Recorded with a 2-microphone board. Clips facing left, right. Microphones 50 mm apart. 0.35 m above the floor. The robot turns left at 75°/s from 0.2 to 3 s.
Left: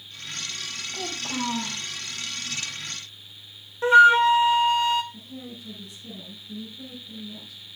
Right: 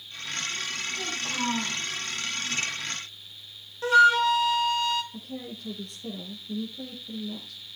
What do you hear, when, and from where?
0.9 s a child speaking: 40° left, 9.5 m; by 1.8 s 30° right, 9.5 m
3.8 s a flute: 25° left (ahead or behind), 1.1 m
5.1 s a woman speaking: 75° right (ahead or behind), 8 m